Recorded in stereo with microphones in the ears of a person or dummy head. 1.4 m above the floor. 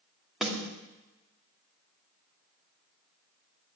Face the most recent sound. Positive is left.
turn(degrees=0)  # may be behind; listen again after turning